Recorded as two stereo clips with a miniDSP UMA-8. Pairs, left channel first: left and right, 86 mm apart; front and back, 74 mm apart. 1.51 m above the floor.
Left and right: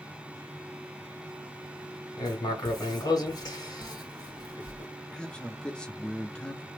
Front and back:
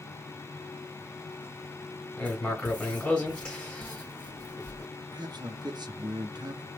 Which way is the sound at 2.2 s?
70° left.